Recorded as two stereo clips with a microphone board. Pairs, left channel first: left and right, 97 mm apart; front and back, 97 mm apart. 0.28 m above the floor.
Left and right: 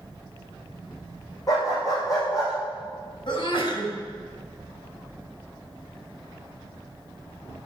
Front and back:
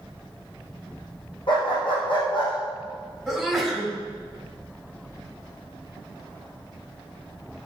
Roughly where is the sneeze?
Left.